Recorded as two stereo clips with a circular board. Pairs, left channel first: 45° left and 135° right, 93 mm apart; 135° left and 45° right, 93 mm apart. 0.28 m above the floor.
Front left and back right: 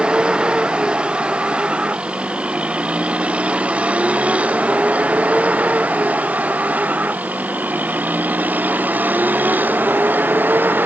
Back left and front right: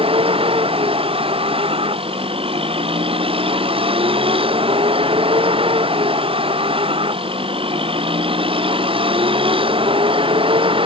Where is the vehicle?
55° right; by 10.9 s 65° right.